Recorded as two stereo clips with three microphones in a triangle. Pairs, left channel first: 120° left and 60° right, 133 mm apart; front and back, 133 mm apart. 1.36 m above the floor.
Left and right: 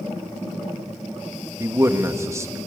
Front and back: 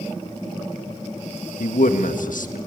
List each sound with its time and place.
1.6 s a man speaking: 10° left, 1.6 m